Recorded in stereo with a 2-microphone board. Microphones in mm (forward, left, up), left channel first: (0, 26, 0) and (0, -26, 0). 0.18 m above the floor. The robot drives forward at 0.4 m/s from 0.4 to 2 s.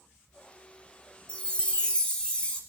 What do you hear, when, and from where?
1.3 s a chime: 20° left (ahead or behind), 1.3 m